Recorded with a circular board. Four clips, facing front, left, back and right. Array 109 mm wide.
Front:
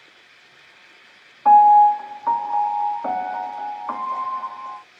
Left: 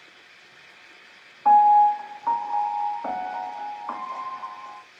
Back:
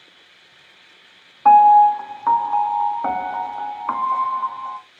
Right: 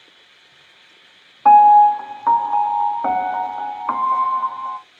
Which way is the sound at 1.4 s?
120° right.